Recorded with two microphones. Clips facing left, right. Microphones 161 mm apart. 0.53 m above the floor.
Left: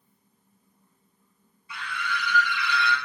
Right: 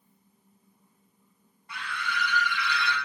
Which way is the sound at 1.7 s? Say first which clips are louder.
Left 1 dB; 70° right (ahead or behind).